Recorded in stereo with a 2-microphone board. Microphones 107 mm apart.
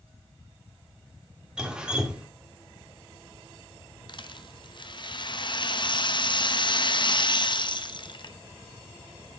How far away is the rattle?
About 0.9 m.